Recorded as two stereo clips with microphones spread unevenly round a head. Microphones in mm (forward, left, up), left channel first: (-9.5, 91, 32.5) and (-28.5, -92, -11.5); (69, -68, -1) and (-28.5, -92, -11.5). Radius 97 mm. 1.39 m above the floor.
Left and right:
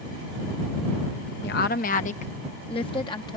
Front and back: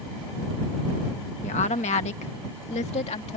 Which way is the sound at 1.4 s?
45° left.